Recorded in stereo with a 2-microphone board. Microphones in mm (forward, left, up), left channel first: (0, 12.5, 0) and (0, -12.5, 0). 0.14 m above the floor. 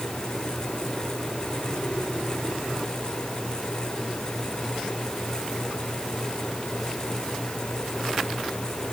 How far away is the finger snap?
I don't hear a finger snap.